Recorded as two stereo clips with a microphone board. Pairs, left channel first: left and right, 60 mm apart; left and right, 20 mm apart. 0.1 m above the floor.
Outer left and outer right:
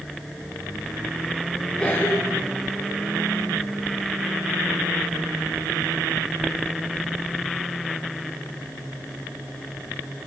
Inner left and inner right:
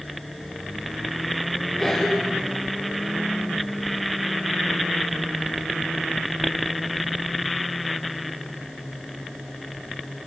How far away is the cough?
About 1.6 m.